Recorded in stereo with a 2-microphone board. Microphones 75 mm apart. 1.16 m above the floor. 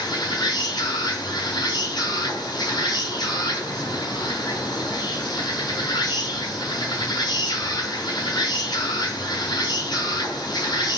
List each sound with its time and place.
0.0 s an insect: 70° left (ahead or behind), 3.5 m